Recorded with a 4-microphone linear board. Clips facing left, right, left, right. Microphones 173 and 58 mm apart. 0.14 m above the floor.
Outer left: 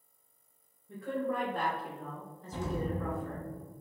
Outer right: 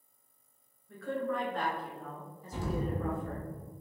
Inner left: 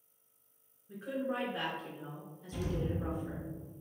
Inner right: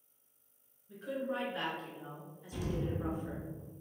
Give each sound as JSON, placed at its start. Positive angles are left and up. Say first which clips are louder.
{"t": 0.9, "sound": "a woman speaking", "louder": "even, inner left 1 dB", "side_deg": 20, "distance_m": 1.5}
{"t": 2.5, "sound": "an explosion", "louder": "even, inner left 1 dB", "side_deg": -5, "distance_m": 0.7}